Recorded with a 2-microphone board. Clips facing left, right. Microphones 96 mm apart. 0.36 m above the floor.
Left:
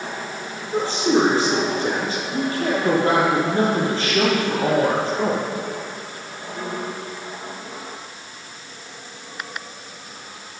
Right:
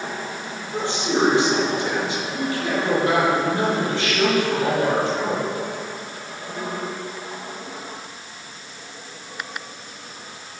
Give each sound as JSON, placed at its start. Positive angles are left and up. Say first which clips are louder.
{"t": 0.7, "sound": "a woman speaking", "louder": "left 4 dB", "side_deg": 40, "distance_m": 9.5}